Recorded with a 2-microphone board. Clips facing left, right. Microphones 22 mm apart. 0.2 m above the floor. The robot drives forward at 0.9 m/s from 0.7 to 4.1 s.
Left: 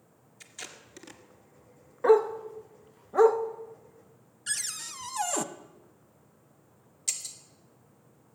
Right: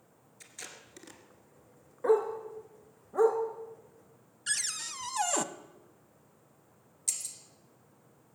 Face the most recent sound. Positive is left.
turn(degrees=35)  # may be behind; listen again after turning